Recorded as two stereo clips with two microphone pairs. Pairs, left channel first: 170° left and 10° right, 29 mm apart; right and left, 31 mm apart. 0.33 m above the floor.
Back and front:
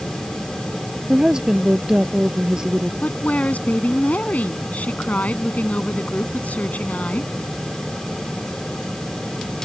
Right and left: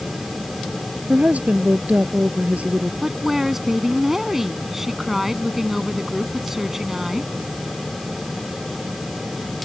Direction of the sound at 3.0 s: 170° left.